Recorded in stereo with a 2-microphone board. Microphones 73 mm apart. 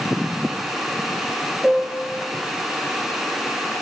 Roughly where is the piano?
Centre.